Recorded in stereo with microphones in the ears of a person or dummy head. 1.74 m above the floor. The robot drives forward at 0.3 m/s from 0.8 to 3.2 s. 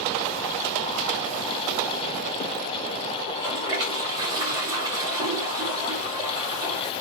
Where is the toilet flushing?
25° right (ahead or behind), 2 m.